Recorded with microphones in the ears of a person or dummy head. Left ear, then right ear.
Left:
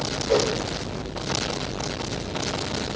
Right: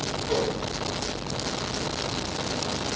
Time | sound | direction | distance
0.3 | a whoosh | 10° right (ahead or behind) | 1.8 m